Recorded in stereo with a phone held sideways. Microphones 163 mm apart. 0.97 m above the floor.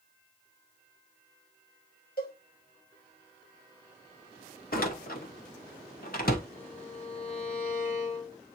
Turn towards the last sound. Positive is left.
turn(degrees=45)  # may be behind; listen again after turning